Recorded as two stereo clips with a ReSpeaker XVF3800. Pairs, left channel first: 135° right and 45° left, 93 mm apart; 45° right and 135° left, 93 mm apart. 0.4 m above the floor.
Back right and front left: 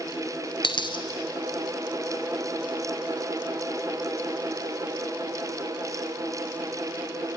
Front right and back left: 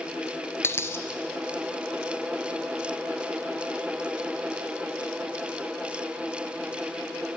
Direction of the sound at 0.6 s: 105° right.